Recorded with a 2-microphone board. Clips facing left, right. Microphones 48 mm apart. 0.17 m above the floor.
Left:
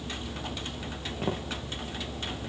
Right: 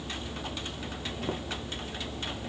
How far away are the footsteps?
About 4.5 m.